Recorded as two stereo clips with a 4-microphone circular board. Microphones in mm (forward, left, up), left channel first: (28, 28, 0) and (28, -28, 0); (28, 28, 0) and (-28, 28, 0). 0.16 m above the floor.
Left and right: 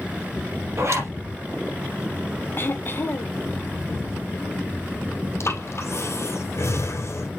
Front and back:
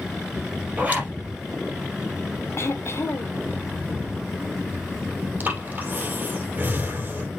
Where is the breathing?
125° left, 2 m.